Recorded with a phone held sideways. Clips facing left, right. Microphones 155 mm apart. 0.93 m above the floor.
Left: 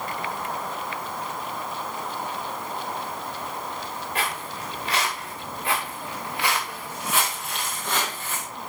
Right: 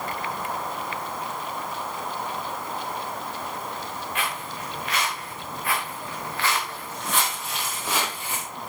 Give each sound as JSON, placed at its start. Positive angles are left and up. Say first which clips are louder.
{"t": 4.2, "sound": "footsteps", "louder": "left 2 dB", "side_deg": 35, "distance_m": 6.0}